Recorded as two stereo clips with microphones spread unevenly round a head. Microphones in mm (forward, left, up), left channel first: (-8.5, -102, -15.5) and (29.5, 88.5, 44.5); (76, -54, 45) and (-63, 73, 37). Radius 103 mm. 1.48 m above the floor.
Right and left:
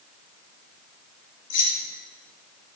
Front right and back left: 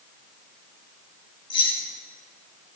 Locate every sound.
1.5 s keys jangling: 110° right, 2.5 m